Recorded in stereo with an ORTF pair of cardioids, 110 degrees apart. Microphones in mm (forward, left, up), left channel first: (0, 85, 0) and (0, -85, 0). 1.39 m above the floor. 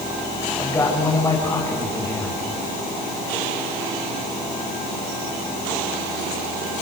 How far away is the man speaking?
About 9 m.